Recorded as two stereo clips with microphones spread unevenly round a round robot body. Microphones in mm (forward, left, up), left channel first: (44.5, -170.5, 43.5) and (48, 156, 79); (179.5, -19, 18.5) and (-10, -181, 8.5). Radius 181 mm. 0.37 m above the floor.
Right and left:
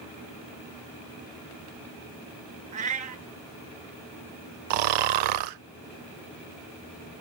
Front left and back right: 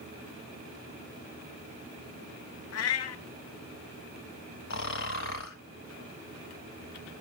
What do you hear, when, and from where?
2.7 s a cat meowing: 25° left, 0.6 m
4.7 s snoring: 95° left, 0.6 m